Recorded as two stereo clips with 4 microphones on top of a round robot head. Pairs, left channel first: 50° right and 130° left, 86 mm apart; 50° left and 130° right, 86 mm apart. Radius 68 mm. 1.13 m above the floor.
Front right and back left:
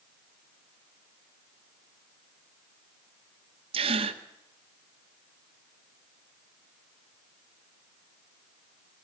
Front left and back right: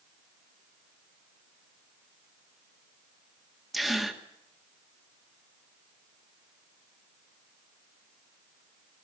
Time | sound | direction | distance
3.7 | a gasp | 140° left | 1.9 m